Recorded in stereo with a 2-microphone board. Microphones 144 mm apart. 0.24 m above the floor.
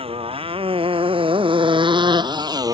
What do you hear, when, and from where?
0.0 s a motorcycle: 40° right (ahead or behind); by 2.7 s 25° right (ahead or behind)